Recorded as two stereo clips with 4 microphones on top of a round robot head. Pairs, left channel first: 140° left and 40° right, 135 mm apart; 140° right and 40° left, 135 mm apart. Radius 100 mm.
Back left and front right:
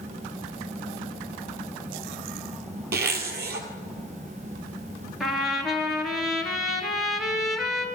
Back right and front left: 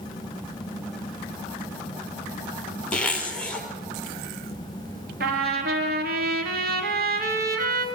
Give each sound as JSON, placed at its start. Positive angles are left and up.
{"t": 2.9, "sound": "a zipper", "azimuth_deg": -55, "distance_m": 3.0}
{"t": 5.2, "sound": "a trumpet", "azimuth_deg": 45, "distance_m": 3.0}